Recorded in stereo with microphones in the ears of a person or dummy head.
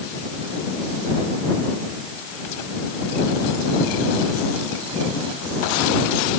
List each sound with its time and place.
Only background noise.